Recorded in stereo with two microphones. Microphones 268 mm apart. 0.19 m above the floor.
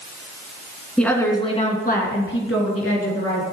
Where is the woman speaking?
5° left (ahead or behind), 2.0 m; by 3.4 s 65° left (ahead or behind), 3 m.